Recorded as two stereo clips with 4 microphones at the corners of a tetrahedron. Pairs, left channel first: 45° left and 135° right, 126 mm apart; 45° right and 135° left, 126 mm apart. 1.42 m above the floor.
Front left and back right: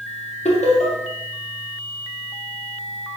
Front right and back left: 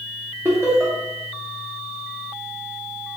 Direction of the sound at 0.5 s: 70° left.